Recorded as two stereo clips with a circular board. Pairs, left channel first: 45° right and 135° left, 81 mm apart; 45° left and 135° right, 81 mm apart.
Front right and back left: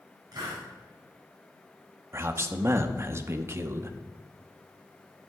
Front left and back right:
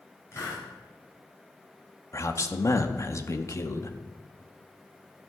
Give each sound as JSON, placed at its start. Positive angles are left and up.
{"t": 0.3, "sound": "a hiss", "azimuth_deg": 100, "distance_m": 4.0}
{"t": 2.1, "sound": "a man speaking", "azimuth_deg": 85, "distance_m": 0.7}